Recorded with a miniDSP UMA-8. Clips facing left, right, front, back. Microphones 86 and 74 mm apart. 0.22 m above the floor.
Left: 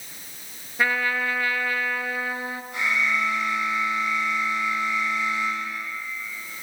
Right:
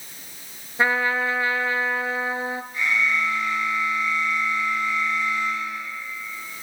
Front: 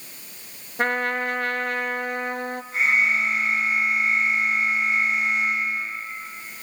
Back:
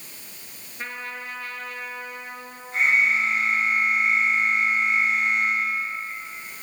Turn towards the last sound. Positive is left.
turn(degrees=90)